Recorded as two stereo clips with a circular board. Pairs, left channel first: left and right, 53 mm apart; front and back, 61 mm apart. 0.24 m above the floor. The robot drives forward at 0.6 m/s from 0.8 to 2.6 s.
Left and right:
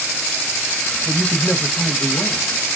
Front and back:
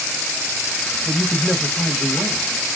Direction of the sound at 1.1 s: 30° left.